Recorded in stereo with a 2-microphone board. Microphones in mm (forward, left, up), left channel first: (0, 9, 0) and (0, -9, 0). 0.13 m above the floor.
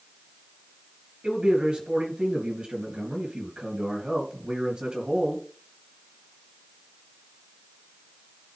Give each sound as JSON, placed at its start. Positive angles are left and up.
{"t": 1.2, "sound": "a man speaking", "side_deg": -50, "distance_m": 3.0}